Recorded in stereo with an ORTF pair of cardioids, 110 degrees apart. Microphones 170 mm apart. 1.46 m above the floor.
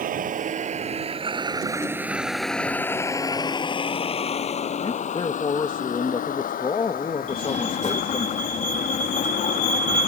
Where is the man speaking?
30° left.